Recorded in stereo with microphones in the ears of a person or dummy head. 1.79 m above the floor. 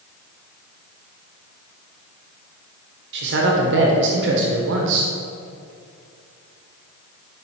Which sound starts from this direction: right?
A man speaking, at 3.1 s.